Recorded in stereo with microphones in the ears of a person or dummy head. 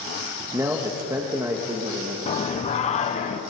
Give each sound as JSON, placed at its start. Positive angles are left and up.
{"t": 0.5, "sound": "a man speaking", "side_deg": -15, "distance_m": 1.7}
{"t": 2.3, "sound": "singing", "side_deg": 30, "distance_m": 1.3}